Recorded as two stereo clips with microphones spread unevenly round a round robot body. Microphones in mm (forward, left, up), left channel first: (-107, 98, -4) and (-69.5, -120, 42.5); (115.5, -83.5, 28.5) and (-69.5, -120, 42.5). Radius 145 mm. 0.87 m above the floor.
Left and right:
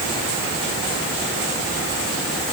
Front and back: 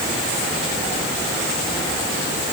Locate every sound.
Only background noise.